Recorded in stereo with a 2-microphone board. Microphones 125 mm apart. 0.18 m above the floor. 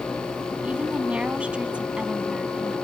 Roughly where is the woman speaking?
Centre.